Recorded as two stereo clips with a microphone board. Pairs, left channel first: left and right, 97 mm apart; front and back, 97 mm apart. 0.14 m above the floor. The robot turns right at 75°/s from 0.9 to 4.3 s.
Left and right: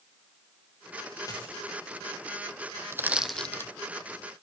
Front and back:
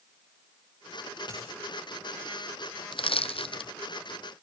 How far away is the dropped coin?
About 6.5 m.